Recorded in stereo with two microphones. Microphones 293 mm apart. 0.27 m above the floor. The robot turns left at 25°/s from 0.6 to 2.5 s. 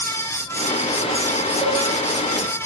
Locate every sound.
1.6 s a cowbell: centre (ahead or behind), 3 m; by 1.8 s 5° right (ahead or behind), 3 m